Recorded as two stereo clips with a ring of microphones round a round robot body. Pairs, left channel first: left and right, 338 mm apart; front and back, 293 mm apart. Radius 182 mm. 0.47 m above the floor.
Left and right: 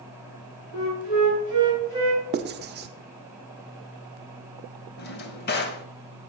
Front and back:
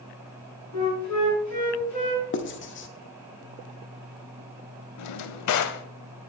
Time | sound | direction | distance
0.7 | a flute | 25° left | 5.5 m
2.3 | writing | 35° right | 0.7 m
5.0 | a drawer | 30° left | 0.6 m